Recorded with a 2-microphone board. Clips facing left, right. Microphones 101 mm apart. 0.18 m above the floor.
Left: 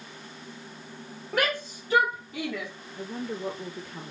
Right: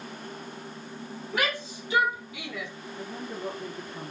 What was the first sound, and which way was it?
A shout, 45° left (ahead or behind).